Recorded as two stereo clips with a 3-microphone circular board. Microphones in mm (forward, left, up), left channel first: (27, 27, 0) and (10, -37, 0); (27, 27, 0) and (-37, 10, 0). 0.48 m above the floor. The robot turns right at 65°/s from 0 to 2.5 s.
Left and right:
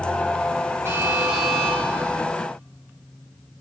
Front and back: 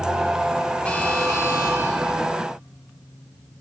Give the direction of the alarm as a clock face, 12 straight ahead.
2 o'clock.